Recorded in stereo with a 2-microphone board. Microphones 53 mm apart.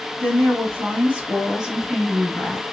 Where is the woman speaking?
45° right (ahead or behind), 1.5 m; by 2.6 s 20° left (ahead or behind), 1.1 m.